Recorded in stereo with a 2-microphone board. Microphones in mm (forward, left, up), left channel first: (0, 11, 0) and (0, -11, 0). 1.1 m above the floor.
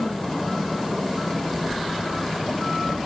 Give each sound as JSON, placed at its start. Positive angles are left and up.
{"t": 1.6, "sound": "footsteps", "side_deg": 50, "distance_m": 3.5}